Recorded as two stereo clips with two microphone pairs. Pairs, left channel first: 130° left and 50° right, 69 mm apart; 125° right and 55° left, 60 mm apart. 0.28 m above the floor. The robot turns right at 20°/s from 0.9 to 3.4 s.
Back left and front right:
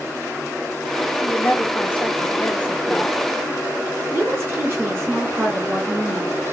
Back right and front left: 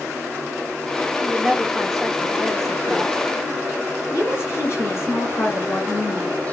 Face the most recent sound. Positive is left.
turn(degrees=-95)